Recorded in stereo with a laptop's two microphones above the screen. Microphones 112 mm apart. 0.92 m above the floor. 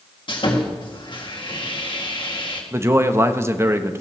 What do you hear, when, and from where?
0.3 s sawing: 45° left (ahead or behind), 1.9 m
2.7 s a man speaking: 25° right (ahead or behind), 0.7 m